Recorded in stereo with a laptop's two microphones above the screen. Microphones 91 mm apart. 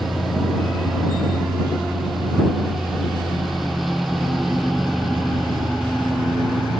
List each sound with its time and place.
0.0 s a lawn mower: centre (ahead or behind)